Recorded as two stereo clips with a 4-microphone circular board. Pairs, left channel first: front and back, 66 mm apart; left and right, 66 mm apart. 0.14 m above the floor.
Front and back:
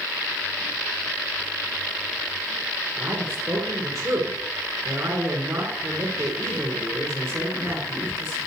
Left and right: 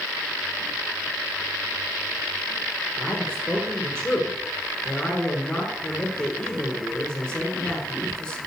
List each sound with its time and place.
3.0 s a man speaking: 160° left, 2.5 m